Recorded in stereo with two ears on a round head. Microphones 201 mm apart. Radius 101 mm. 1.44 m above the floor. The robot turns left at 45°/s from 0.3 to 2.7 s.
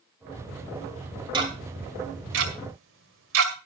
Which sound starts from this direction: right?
Ticking, at 1.3 s.